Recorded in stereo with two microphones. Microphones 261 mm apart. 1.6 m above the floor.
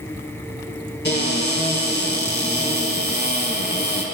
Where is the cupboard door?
45° left (ahead or behind), 2.5 m.